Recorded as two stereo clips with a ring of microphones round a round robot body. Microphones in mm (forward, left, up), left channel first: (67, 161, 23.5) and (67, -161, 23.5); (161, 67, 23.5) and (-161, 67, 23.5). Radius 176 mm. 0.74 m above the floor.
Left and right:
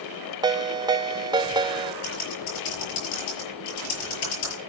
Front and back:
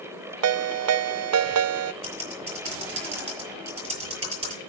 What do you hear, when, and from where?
0.4 s a ringtone: 165° right, 0.5 m
2.0 s typing on a keyboard: 110° left, 7.5 m